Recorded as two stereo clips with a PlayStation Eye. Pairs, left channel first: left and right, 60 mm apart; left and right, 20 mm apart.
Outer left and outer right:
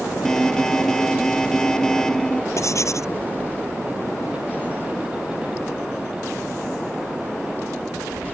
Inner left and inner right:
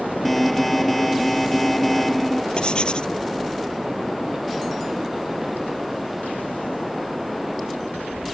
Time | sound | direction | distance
0.2 | an alarm | 10° left (ahead or behind) | ?
2.6 | writing | 60° left (ahead or behind) | ?